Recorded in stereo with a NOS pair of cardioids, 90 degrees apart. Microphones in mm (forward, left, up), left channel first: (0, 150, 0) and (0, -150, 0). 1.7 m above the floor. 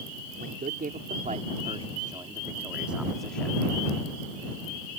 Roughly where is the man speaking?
Ahead right.